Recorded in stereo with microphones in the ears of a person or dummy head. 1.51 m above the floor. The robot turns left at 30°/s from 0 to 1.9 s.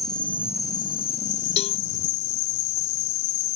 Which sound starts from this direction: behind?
An insect, at 0.0 s.